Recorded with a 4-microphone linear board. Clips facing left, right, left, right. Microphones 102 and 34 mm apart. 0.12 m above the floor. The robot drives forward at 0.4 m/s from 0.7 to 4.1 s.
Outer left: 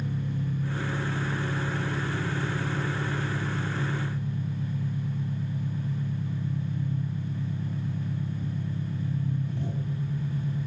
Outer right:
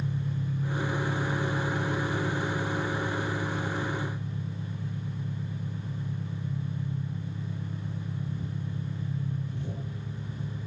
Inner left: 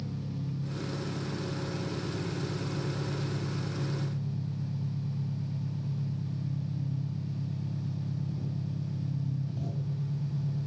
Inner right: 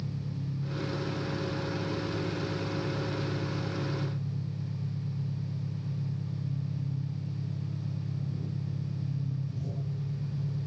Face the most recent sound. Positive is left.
turn(degrees=35)  # may be behind; listen again after turning